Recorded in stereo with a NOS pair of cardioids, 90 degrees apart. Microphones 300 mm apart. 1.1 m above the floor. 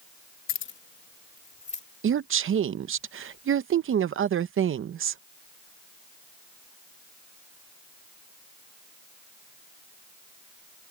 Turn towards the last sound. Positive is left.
turn(degrees=-45)